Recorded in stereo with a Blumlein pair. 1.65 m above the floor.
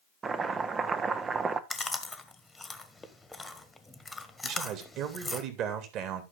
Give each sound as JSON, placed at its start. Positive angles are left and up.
{"t": 0.2, "sound": "chopping", "azimuth_deg": -20, "distance_m": 1.0}
{"t": 1.7, "sound": "chewing", "azimuth_deg": 5, "distance_m": 1.6}
{"t": 4.4, "sound": "a man speaking", "azimuth_deg": -35, "distance_m": 2.5}